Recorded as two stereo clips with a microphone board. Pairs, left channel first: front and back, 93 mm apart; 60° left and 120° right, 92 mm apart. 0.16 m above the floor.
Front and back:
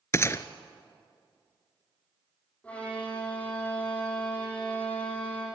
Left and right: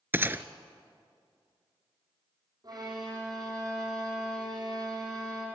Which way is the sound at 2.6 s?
75° right.